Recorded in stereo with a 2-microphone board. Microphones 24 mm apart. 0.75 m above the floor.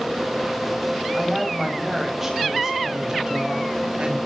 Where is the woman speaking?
Centre (ahead or behind), 4 m; by 4.2 s 40° right (ahead or behind), 4 m.